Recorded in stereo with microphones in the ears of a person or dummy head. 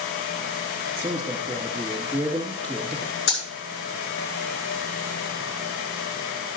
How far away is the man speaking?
About 2 m.